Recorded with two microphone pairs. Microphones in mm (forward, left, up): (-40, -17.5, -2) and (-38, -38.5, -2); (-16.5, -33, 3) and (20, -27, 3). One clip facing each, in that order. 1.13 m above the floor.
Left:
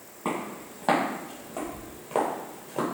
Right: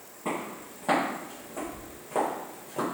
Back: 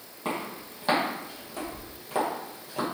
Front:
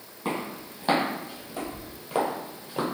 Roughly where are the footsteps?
Left.